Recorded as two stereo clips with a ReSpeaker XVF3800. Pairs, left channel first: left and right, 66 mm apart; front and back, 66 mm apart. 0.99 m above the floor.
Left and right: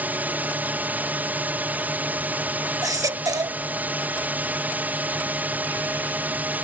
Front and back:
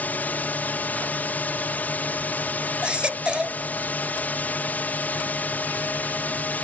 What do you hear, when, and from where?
0.0 s a drone: 45° right
2.8 s a baby crying: 105° right